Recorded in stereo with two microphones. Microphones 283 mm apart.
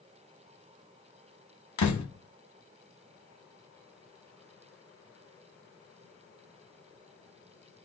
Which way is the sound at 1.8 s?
85° left.